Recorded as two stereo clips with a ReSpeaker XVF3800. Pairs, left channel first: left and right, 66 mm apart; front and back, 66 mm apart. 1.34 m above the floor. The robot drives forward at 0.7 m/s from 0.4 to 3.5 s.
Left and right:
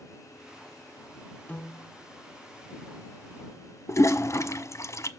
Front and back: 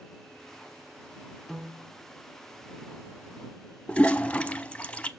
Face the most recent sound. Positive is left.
turn(degrees=65)